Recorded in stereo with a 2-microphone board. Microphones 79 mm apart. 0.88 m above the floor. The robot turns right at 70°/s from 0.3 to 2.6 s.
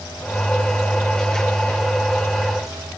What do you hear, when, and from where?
Only background noise.